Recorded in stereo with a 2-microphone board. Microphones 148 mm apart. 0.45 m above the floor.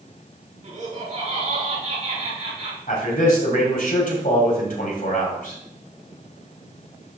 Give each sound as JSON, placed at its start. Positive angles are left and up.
{"t": 0.6, "sound": "laughter", "side_deg": -55, "distance_m": 4.5}
{"t": 2.9, "sound": "a man speaking", "side_deg": 70, "distance_m": 2.5}